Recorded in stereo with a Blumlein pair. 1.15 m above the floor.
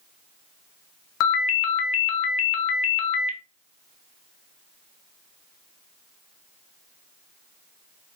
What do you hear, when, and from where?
1.2 s a ringtone: 40° left, 0.5 m